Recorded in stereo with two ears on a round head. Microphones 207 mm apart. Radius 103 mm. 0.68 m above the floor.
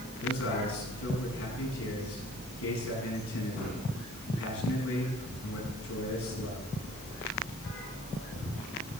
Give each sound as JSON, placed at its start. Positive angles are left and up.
{"t": 0.2, "sound": "a man speaking", "side_deg": 70, "distance_m": 9.0}